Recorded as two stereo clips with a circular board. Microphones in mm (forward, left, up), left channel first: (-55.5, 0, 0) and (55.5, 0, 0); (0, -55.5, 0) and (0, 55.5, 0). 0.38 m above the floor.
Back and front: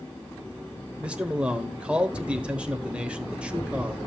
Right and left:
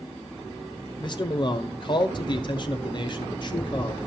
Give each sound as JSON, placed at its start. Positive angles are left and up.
{"t": 1.0, "sound": "a man speaking", "azimuth_deg": -75, "distance_m": 1.0}